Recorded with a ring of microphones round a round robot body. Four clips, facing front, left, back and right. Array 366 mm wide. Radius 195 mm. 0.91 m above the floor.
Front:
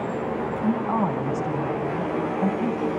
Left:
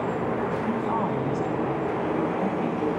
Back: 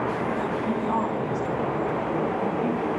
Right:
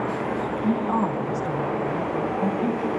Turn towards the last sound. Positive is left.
turn(degrees=10)